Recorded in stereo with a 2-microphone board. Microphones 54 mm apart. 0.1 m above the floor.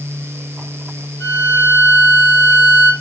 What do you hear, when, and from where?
1.2 s a violin: 50° left (ahead or behind), 5.5 m